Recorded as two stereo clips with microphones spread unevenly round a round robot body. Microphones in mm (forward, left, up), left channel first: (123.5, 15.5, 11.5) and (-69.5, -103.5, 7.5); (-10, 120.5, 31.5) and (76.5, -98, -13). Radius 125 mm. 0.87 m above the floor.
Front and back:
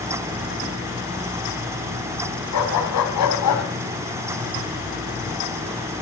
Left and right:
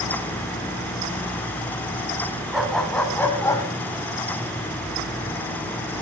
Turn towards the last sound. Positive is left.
turn(degrees=65)